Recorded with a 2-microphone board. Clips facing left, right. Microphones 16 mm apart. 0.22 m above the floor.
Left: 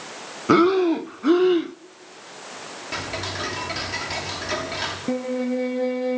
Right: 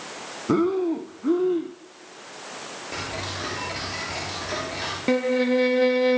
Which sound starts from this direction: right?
A violin, at 5.1 s.